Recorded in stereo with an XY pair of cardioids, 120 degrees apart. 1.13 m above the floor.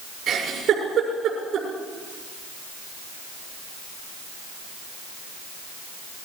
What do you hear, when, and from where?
0.3 s a giggle: 50° right, 6.5 m